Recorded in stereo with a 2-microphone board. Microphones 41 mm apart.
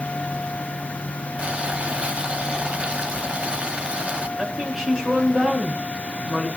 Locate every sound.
1.4 s boiling: 35° right (ahead or behind), 1.1 m
4.4 s a woman speaking: 15° right (ahead or behind), 5.5 m